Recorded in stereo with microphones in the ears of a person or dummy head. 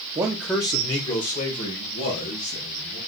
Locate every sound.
0.1 s a man speaking: 20° right (ahead or behind), 0.6 m; by 3.0 s 60° left (ahead or behind), 2.5 m